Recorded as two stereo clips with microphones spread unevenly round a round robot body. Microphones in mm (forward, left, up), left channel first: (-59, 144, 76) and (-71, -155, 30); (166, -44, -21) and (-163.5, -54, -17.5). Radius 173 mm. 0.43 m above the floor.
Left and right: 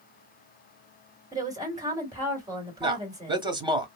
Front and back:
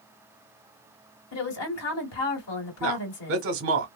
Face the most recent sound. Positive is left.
turn(degrees=-150)